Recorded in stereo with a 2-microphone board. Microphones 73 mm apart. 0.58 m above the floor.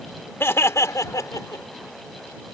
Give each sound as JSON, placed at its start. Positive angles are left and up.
{"t": 0.4, "sound": "laughter", "side_deg": 35}